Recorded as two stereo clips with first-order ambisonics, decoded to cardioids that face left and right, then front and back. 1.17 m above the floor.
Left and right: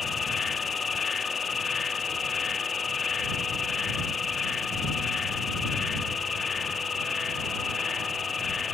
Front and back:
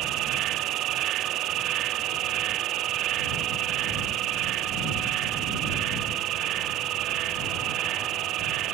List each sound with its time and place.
0.0 s an insect: 155° left